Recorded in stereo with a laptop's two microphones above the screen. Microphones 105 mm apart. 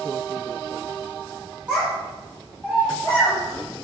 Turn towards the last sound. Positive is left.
turn(degrees=30)  # may be behind; listen again after turning